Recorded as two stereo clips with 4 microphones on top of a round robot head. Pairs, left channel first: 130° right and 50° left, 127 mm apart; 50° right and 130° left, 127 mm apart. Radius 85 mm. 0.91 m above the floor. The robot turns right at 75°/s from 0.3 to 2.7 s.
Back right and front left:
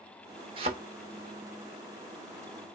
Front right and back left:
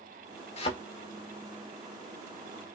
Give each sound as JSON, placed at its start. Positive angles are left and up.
{"t": 0.6, "sound": "a thud", "azimuth_deg": -5, "distance_m": 0.8}